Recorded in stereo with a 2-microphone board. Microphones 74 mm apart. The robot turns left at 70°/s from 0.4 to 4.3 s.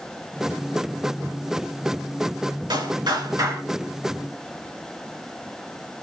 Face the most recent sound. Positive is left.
turn(degrees=170)